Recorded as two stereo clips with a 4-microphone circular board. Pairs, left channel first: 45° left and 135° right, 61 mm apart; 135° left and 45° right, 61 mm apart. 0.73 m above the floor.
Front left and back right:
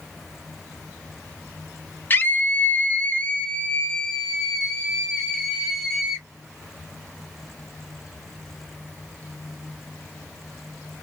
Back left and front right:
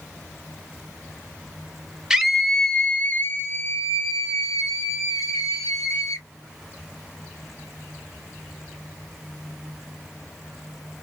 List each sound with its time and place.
2.1 s a scream: 25° left, 0.9 m; by 6.3 s 135° left, 2.5 m